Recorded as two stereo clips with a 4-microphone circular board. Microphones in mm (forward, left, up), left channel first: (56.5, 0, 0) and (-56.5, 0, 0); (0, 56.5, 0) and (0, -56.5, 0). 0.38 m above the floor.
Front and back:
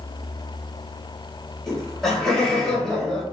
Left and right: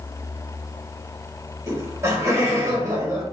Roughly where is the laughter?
Right.